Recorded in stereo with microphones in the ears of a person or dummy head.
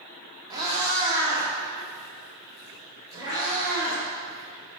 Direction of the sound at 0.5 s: 20° right (ahead or behind).